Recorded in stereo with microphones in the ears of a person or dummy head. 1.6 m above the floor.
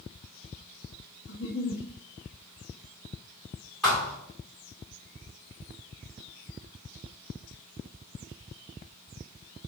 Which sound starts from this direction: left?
A giggle, at 1.3 s.